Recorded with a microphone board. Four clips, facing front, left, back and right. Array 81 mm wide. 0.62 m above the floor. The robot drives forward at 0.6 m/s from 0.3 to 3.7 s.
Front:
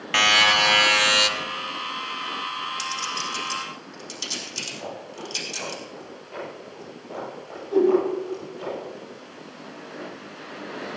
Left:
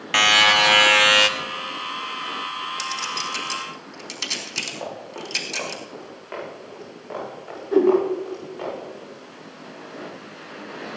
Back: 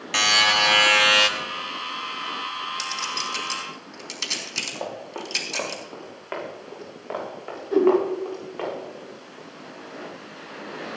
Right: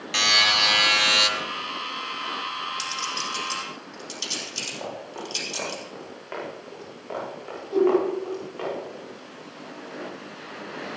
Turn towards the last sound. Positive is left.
turn(degrees=125)